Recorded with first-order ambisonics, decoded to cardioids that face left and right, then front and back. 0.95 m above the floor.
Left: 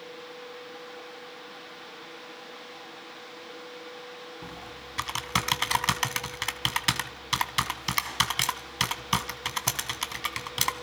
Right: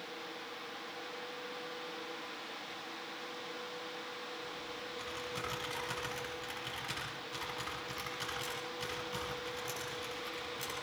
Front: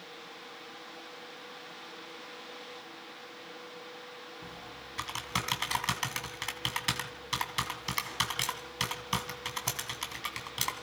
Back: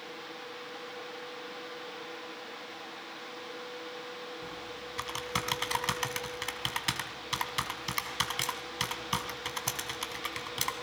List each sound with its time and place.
4.4 s typing on a keyboard: 85° left, 1.9 m